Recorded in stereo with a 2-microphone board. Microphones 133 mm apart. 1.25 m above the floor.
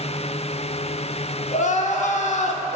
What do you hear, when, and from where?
1.5 s crying: 60° left (ahead or behind), 0.6 m